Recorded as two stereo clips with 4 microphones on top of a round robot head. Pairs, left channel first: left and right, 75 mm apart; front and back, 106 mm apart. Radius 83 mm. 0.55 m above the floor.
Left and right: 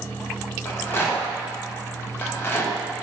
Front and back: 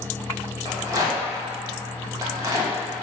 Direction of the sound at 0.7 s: 135° left.